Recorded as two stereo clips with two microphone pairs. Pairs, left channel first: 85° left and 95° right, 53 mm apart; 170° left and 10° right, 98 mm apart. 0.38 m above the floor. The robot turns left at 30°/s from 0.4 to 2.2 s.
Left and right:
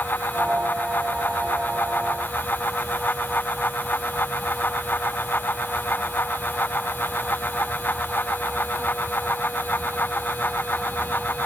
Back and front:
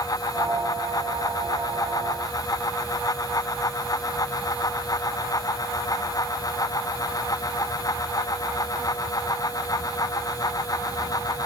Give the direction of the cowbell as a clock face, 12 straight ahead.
I don't hear a cowbell.